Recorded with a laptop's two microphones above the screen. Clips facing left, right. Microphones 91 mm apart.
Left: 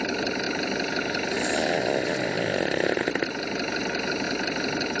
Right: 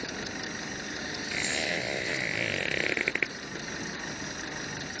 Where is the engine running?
85° left.